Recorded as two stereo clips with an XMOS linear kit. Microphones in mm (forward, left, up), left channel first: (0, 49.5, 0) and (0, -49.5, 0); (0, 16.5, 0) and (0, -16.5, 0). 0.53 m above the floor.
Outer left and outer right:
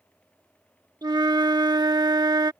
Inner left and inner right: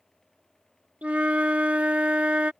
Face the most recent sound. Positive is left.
turn(degrees=-45)  # may be behind; listen again after turning